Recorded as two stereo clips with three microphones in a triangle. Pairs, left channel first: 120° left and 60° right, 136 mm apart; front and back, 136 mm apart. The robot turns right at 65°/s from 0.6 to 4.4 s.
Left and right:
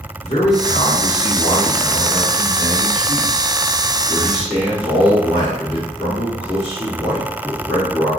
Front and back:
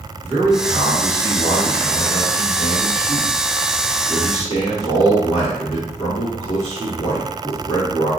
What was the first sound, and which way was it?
A man speaking, 110° left.